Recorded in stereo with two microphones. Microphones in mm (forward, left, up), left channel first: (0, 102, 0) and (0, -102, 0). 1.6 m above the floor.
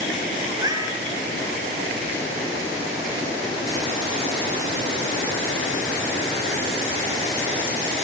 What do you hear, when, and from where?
0.5 s a cat meowing: 15° right (ahead or behind), 9.5 m